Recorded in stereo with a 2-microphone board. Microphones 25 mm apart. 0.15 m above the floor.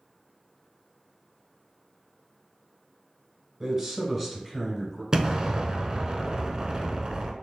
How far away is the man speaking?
About 1.0 m.